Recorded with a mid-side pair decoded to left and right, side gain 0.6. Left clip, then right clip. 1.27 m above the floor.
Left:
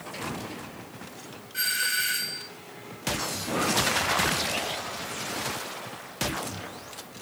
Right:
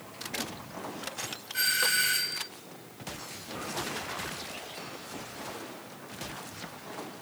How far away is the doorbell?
About 3 m.